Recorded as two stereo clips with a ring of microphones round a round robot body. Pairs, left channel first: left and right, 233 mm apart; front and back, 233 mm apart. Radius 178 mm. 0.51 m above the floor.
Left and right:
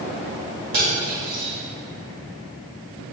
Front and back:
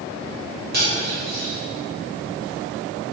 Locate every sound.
0.7 s cutlery clinking: 125° right, 1.4 m